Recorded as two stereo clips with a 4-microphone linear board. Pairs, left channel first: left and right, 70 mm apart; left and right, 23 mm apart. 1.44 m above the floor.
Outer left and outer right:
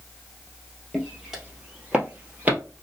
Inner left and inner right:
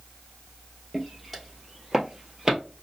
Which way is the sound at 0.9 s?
5° right (ahead or behind).